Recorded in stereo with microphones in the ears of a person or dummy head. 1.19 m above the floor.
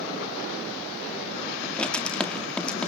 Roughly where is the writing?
Centre.